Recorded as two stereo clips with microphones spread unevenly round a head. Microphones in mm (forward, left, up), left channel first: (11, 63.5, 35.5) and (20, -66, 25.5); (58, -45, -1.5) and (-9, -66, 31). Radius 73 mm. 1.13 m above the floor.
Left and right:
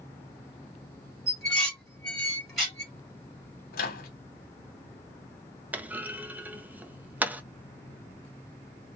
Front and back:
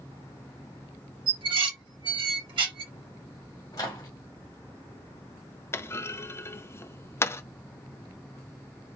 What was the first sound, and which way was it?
Dishes clattering, straight behind.